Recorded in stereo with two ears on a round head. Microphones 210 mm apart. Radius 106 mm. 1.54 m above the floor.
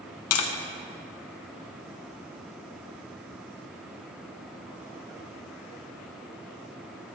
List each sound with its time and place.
0.3 s tapping: 65° left (ahead or behind), 1.3 m